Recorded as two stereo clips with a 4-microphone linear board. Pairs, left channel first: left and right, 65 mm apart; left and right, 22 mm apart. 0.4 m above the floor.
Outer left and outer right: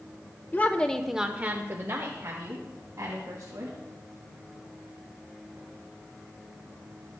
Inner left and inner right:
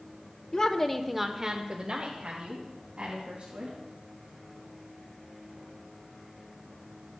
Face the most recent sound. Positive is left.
turn(degrees=-55)  # may be behind; listen again after turning